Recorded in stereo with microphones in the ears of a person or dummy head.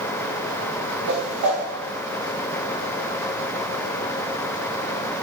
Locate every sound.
1.1 s a whoosh: 65° right (ahead or behind), 1.9 m